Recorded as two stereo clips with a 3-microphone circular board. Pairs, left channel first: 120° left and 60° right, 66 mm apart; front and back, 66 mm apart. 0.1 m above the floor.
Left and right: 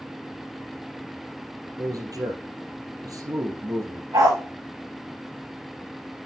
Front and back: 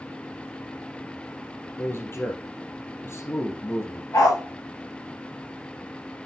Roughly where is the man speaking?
Ahead right.